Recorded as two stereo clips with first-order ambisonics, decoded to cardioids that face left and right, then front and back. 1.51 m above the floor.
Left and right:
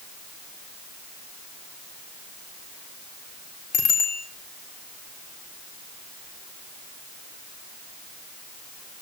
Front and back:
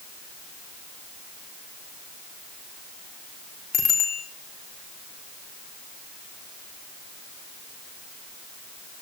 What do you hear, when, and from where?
3.7 s a bicycle bell: 55° left, 4 m